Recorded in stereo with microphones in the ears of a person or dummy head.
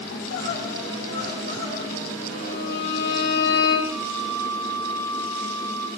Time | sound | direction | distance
0.1 | crying | 70° left (ahead or behind) | 7.5 m
2.3 | a violin | 50° left (ahead or behind) | 8 m
3.9 | a flute | 80° left | 6 m